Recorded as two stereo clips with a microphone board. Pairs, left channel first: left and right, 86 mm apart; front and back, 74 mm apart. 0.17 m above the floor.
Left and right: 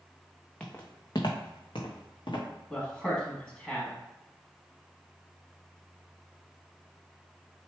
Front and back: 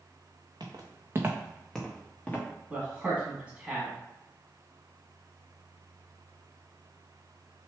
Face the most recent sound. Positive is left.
turn(degrees=145)